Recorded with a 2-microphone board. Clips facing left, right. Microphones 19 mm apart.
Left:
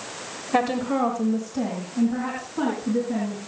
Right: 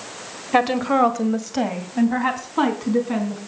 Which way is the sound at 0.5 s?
20° right (ahead or behind).